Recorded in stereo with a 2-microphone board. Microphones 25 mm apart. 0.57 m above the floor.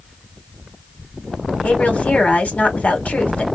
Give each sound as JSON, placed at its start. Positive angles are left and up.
{"t": 1.6, "sound": "a woman speaking", "side_deg": 60, "distance_m": 1.8}